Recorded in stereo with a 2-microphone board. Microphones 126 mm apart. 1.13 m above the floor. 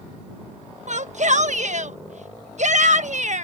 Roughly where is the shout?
Right.